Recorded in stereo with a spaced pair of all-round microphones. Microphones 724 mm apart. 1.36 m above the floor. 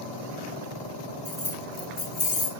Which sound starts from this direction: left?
Keys jangling, at 1.2 s.